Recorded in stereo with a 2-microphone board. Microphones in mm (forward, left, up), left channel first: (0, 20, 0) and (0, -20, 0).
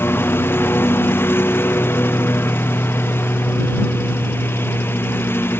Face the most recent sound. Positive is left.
turn(degrees=70)  # may be behind; listen again after turning